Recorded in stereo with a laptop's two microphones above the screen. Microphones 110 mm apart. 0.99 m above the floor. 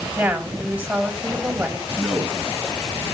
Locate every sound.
0.2 s a woman speaking: 10° right (ahead or behind), 5 m
2.0 s a man speaking: centre (ahead or behind), 10 m